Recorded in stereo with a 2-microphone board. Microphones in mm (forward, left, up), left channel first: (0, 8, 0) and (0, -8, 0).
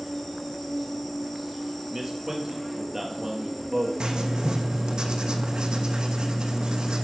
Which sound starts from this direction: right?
Writing, at 4.0 s.